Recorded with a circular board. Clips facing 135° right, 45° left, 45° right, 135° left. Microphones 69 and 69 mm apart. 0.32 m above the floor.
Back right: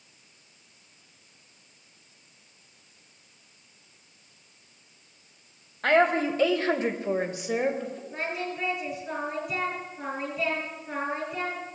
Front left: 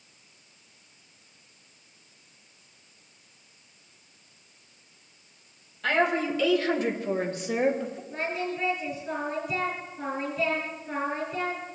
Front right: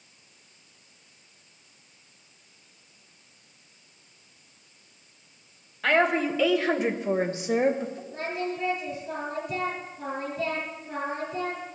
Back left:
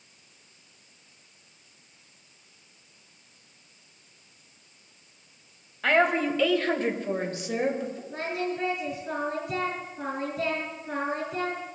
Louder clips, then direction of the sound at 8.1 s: Front left 2 dB, back left 1 dB; 140° left.